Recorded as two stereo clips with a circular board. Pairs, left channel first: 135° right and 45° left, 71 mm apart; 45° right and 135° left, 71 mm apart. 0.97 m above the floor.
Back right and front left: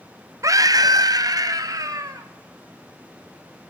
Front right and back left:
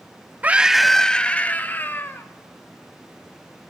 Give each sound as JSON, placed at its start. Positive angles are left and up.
{"t": 0.4, "sound": "a scream", "azimuth_deg": 70, "distance_m": 0.6}